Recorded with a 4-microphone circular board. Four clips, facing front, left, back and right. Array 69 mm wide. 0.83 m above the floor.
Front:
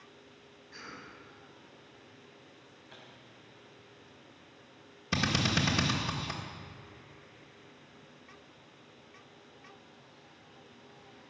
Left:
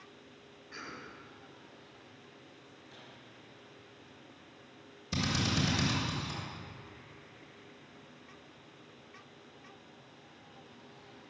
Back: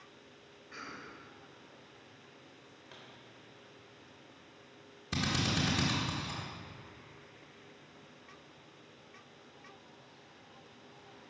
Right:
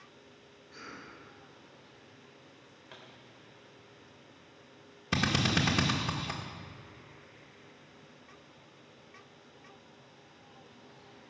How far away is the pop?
About 3.5 m.